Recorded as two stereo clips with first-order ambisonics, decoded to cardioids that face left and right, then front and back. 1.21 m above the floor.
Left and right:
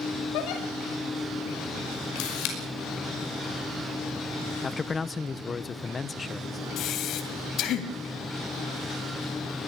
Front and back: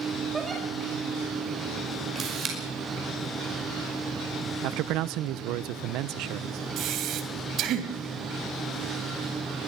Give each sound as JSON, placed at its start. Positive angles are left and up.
{"t": 0.3, "sound": "a giggle", "azimuth_deg": 105, "distance_m": 5.5}
{"t": 2.1, "sound": "a camera shutter", "azimuth_deg": 120, "distance_m": 5.5}
{"t": 4.6, "sound": "a man speaking", "azimuth_deg": 160, "distance_m": 0.7}
{"t": 6.8, "sound": "breathing", "azimuth_deg": 135, "distance_m": 2.0}